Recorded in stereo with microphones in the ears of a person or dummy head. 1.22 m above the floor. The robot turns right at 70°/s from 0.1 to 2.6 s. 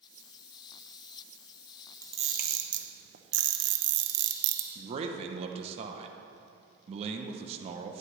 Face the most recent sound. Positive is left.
turn(degrees=-40)  # may be behind; listen again after turning